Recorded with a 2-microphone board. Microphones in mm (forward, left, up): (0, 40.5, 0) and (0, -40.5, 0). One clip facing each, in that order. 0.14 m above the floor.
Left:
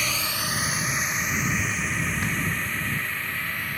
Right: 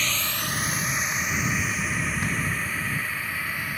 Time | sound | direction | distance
0.0 | a drone | 10° left (ahead or behind) | ?